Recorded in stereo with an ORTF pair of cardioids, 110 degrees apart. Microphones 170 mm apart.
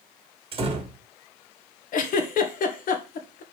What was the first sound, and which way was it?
A door slam, 35° right.